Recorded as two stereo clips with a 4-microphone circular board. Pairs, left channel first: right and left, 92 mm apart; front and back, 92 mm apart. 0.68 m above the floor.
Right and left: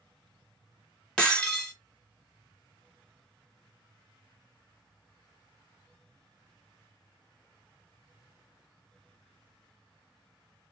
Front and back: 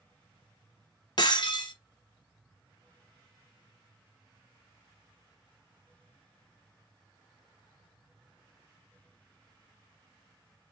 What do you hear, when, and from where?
1.2 s breaking glass: 15° right, 0.8 m